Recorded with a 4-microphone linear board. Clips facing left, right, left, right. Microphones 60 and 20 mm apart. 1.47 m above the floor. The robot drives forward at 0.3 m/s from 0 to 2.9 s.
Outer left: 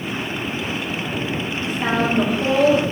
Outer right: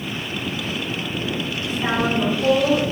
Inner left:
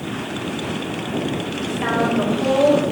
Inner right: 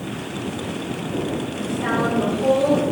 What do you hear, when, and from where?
1.6 s a woman speaking: 50° left (ahead or behind), 1.2 m; by 2.8 s 65° left (ahead or behind), 1.1 m